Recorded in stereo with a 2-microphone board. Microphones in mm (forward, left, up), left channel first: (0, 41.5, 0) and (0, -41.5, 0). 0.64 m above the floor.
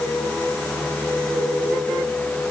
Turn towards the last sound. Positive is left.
No sound to turn to.